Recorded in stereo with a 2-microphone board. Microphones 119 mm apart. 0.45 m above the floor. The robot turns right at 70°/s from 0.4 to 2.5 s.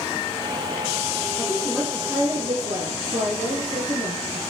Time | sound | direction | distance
1.4 | a woman speaking | 150° left | 8 m